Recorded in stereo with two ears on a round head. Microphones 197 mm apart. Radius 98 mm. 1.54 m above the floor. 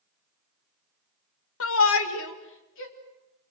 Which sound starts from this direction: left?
A shout, at 1.6 s.